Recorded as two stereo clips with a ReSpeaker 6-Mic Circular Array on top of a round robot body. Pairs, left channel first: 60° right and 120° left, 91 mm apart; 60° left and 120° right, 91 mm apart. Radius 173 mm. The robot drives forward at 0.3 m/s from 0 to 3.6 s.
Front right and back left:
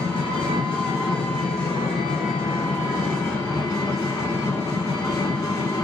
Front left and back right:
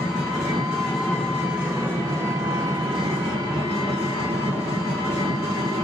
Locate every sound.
0.0 s an engine running: 25° right, 1.1 m; by 5.8 s 115° right, 0.6 m